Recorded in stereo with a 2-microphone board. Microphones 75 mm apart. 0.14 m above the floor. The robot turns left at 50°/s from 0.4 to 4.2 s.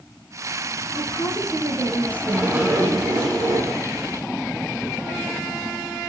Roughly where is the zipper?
Ahead.